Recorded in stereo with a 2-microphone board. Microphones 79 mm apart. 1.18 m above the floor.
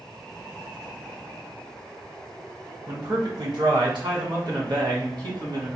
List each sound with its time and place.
2.9 s a man speaking: 55° right (ahead or behind), 1.6 m; by 5.8 s 60° right (ahead or behind), 1.8 m